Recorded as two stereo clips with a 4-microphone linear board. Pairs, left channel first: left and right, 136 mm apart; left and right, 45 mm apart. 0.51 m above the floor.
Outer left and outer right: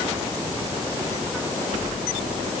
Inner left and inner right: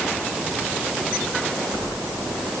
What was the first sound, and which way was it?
Only background noise.